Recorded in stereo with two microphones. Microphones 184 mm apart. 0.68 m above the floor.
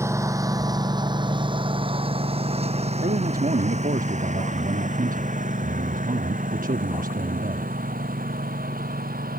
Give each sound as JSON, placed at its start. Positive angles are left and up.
{"t": 0.0, "sound": "a lawn mower", "side_deg": -15}
{"t": 3.0, "sound": "a man speaking", "side_deg": -50}